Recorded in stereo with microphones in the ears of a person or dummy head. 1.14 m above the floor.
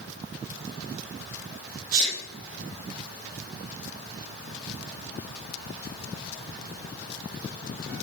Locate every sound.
1.9 s a sneeze: 50° right (ahead or behind), 3.5 m